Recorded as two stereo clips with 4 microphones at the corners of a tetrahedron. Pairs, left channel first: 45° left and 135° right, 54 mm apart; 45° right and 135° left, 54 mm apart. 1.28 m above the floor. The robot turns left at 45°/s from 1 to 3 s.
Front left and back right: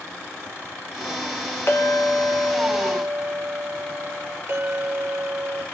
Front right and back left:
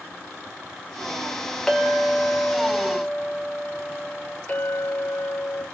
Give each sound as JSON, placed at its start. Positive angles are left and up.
{"t": 1.7, "sound": "a clink", "azimuth_deg": 35, "distance_m": 0.9}
{"t": 4.5, "sound": "a clink", "azimuth_deg": -90, "distance_m": 1.0}